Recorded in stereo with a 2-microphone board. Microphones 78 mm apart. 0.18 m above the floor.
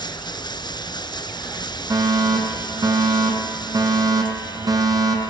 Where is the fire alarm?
50° right (ahead or behind), 3.5 m.